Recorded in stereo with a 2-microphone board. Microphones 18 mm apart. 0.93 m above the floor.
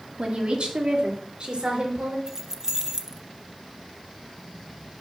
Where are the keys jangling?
30° right (ahead or behind), 0.6 m.